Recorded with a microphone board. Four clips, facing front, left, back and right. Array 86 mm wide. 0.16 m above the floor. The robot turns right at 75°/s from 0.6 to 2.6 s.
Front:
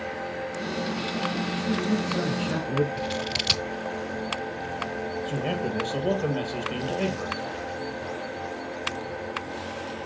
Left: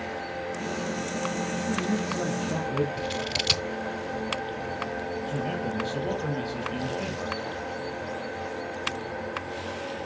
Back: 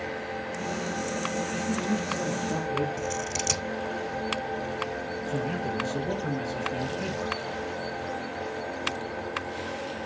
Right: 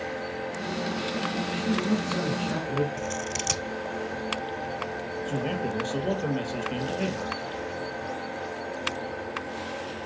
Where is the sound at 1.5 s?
100° right, 3.5 m; by 2.9 s 20° right, 3.5 m.